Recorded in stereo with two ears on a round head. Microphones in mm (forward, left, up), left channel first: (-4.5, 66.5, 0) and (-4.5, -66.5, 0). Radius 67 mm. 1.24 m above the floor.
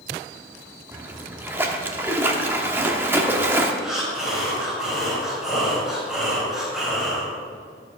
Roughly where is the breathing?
Centre.